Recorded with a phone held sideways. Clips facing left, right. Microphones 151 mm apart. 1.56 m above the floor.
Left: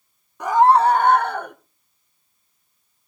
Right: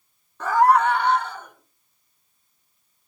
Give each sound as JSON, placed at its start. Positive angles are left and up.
{"t": 0.4, "sound": "a scream", "side_deg": 15, "distance_m": 0.9}